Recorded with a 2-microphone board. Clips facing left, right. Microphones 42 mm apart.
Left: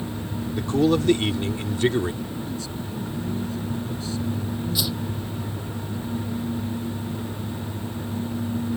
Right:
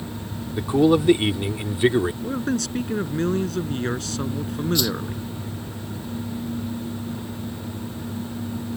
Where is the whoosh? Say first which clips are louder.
Right 5 dB; 10° left (ahead or behind).